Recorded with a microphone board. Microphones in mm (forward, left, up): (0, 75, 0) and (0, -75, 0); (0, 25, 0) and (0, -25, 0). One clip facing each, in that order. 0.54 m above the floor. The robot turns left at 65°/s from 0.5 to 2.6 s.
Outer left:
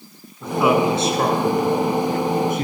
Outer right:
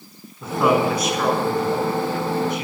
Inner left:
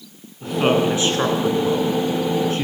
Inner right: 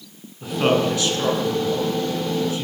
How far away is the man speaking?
About 8 m.